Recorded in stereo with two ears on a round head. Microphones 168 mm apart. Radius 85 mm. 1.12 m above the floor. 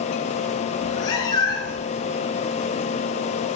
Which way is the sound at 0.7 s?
20° left (ahead or behind).